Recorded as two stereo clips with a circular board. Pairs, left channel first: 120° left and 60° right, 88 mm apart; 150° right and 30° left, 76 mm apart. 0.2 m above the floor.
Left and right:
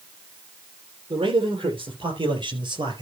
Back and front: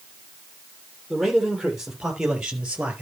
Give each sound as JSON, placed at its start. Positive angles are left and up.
{"t": 1.1, "sound": "a man speaking", "azimuth_deg": -55, "distance_m": 5.0}